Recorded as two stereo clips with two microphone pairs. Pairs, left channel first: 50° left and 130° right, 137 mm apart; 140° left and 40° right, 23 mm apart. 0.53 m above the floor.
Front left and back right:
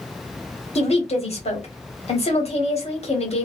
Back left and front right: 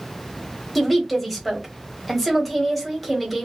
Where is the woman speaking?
50° left, 1.4 m.